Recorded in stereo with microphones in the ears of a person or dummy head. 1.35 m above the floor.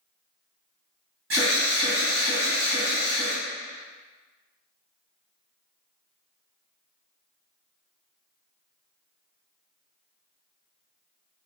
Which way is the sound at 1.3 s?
65° right (ahead or behind).